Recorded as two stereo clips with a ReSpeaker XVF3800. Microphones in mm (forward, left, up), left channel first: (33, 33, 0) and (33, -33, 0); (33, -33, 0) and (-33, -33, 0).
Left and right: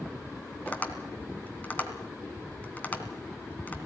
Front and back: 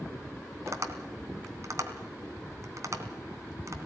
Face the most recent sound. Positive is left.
turn(degrees=150)